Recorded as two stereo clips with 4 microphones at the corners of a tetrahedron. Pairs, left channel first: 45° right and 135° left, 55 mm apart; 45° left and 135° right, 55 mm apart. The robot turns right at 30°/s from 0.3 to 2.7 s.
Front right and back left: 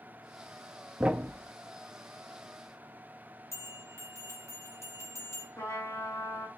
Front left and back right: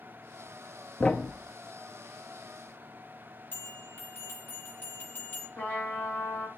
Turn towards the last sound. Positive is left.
turn(degrees=-15)